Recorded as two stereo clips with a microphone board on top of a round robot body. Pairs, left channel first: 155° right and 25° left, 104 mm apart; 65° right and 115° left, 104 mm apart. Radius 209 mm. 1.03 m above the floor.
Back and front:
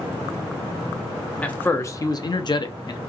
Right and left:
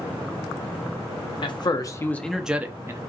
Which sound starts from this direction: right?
A man speaking, at 1.4 s.